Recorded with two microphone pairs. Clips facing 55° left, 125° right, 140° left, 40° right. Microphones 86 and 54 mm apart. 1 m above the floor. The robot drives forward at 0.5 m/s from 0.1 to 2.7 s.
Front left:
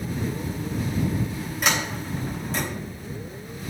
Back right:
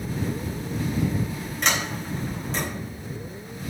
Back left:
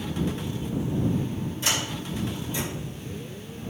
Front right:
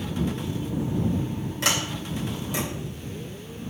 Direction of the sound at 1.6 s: 30° right.